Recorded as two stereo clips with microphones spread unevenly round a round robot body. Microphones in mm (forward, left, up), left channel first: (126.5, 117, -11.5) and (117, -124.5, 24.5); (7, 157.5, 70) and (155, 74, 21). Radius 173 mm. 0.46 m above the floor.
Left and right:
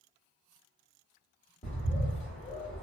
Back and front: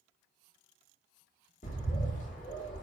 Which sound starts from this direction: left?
A bird, at 1.6 s.